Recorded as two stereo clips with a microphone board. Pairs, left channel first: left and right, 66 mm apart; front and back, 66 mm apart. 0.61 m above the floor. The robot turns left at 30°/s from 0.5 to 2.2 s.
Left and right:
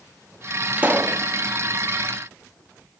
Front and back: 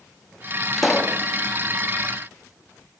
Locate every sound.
0.8 s a pop: 75° right, 0.8 m; by 1.2 s 90° right, 0.8 m